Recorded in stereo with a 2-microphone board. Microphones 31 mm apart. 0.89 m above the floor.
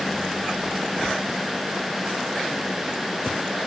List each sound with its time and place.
Only background noise.